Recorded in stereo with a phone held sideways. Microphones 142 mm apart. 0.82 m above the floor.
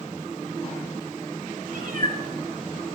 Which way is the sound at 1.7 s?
70° right (ahead or behind).